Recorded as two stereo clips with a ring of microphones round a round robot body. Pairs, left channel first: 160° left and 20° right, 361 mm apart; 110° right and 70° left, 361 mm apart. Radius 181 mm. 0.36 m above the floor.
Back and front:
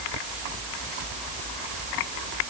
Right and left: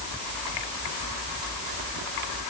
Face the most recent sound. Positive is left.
No sound to turn to.